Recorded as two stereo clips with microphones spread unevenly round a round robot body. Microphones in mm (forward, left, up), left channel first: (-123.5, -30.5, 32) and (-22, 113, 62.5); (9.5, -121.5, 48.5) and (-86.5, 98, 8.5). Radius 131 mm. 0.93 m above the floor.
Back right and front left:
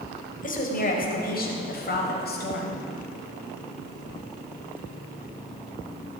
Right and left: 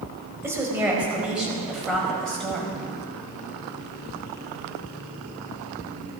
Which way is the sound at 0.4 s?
165° right.